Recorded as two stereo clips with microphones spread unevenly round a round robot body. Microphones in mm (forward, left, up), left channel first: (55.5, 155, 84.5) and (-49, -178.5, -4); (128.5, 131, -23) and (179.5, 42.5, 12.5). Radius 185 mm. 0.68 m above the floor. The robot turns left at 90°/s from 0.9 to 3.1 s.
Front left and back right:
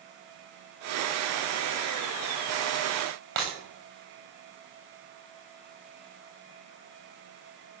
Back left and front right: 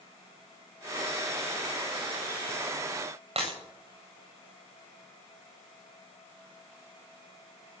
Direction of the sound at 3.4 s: 45° right.